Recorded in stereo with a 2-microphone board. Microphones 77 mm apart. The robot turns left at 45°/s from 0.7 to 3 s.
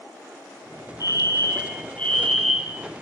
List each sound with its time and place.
1.0 s a fire alarm: 65° left, 5.5 m; by 2.8 s 15° right, 5.5 m